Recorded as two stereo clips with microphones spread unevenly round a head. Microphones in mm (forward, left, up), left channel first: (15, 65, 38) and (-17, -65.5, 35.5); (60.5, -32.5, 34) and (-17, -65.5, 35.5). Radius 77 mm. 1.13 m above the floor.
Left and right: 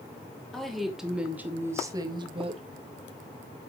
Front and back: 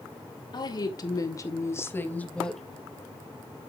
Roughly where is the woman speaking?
Ahead.